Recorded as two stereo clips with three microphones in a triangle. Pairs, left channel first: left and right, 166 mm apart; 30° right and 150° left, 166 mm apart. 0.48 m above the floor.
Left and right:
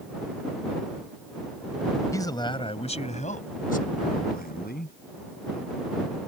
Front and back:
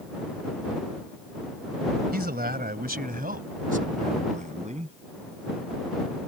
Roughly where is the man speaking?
Behind.